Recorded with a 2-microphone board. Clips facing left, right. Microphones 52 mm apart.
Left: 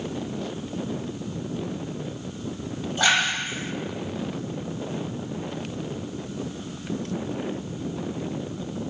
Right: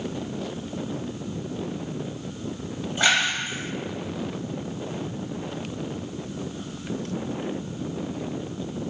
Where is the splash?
10° right (ahead or behind), 1.5 m.